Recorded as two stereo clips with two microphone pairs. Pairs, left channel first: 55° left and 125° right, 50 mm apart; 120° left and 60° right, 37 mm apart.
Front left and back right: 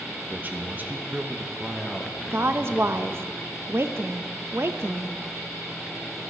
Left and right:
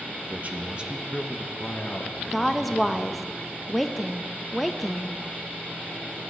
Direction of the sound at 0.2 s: 75° right.